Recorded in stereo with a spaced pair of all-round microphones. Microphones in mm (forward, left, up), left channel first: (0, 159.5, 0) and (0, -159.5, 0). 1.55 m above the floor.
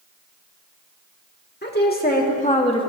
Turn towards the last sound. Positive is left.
turn(degrees=15)  # may be behind; listen again after turning